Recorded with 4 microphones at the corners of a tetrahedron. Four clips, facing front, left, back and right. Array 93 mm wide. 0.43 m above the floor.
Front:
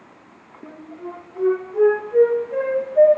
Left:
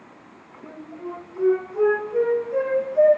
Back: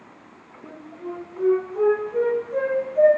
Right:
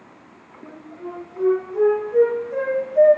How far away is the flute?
About 9.5 m.